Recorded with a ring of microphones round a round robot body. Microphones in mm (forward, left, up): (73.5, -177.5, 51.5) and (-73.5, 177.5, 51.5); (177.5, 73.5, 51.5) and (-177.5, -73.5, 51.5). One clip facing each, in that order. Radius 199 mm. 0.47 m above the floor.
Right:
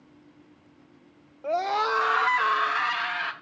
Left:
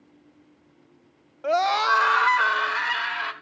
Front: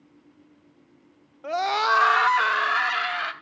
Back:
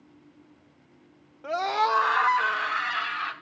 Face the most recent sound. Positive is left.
turn(degrees=20)